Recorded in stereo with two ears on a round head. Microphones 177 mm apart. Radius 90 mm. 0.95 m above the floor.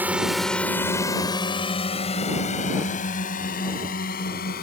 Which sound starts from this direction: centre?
A drone, at 0.0 s.